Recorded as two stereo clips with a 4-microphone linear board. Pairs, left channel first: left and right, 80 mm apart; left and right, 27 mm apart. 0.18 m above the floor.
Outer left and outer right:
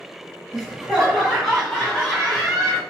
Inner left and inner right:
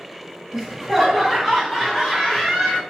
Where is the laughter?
Centre (ahead or behind), 1.5 m; by 2.8 s 15° left (ahead or behind), 1.7 m.